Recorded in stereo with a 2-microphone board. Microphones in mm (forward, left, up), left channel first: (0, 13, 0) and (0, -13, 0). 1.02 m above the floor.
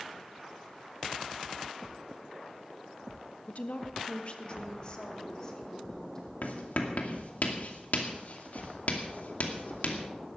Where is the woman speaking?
65° left (ahead or behind), 1.3 m; by 6.3 s 30° left (ahead or behind), 4 m.